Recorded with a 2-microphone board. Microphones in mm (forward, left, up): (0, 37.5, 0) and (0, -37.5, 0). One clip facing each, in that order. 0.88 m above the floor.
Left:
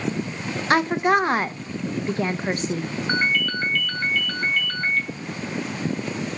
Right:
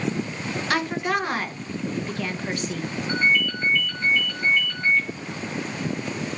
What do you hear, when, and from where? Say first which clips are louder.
0.7 s a woman speaking: left 6 dB; 30° left (ahead or behind), 0.6 m
3.1 s a ringtone: right 1 dB; 60° left (ahead or behind), 1.9 m